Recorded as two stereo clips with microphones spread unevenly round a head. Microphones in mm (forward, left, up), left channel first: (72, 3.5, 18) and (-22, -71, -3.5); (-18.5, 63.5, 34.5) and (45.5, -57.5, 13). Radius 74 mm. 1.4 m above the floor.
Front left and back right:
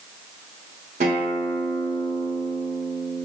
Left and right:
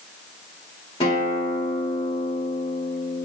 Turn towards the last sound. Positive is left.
turn(degrees=180)